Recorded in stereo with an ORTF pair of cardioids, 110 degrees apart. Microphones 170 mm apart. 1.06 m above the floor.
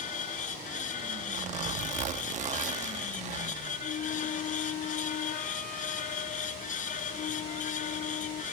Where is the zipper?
45° right.